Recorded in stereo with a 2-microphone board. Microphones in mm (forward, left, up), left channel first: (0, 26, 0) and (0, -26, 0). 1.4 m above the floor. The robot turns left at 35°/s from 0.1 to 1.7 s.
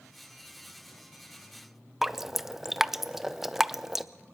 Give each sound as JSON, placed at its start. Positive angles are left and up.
{"t": 2.0, "sound": "dripping", "side_deg": -5, "distance_m": 0.5}